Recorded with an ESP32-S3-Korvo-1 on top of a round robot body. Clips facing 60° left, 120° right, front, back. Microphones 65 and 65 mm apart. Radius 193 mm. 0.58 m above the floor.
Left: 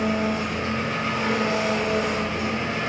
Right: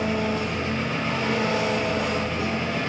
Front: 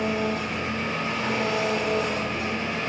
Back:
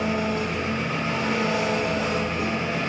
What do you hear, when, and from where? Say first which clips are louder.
0.0 s an engine running: left 1 dB, back 1 dB; 130° left, 5.5 m